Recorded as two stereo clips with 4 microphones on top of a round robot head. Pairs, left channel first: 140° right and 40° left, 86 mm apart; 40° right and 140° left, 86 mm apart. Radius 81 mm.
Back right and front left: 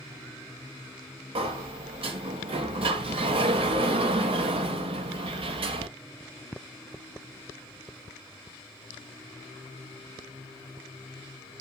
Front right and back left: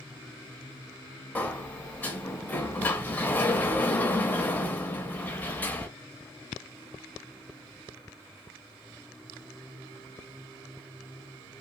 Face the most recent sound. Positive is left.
turn(degrees=30)